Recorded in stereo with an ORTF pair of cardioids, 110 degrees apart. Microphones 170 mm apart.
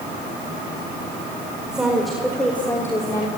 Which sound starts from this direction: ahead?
A woman speaking, at 1.7 s.